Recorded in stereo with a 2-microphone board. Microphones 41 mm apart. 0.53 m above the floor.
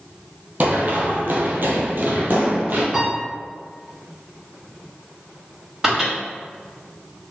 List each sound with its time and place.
0.6 s running footsteps: 45° right (ahead or behind), 1.0 m; by 2.8 s 50° right (ahead or behind), 1.1 m
2.9 s a piano: 10° right (ahead or behind), 1.1 m
5.8 s a microwave: 15° right (ahead or behind), 1.5 m